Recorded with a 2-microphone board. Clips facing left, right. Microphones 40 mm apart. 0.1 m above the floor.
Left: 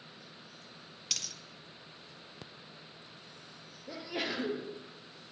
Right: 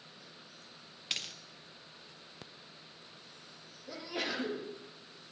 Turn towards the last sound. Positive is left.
turn(degrees=15)  # may be behind; listen again after turning